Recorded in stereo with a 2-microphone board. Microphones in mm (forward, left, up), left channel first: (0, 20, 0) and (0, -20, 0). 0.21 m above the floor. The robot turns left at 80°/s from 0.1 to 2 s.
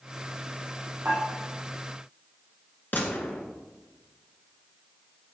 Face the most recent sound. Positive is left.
turn(degrees=50)  # may be behind; listen again after turning